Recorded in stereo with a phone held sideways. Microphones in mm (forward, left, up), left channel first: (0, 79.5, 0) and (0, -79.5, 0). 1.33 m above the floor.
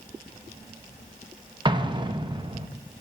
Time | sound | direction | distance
1.6 | an explosion | 30° right (ahead or behind) | 0.8 m